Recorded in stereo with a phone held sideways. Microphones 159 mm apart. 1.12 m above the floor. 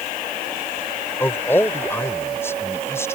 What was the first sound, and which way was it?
A man speaking, 15° left (ahead or behind).